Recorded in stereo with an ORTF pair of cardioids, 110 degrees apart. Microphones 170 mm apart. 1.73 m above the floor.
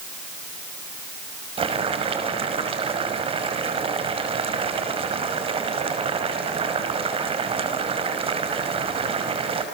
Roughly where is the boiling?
Ahead right.